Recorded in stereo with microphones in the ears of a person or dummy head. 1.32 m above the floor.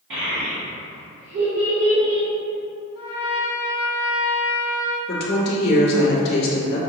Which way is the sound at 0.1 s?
70° right (ahead or behind).